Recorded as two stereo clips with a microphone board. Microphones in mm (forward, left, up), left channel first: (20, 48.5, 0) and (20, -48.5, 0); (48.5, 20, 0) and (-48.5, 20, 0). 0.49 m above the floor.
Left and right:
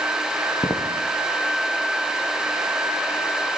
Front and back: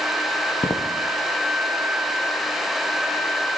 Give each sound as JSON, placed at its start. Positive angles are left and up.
{"t": 0.6, "sound": "footsteps", "azimuth_deg": 55, "distance_m": 0.9}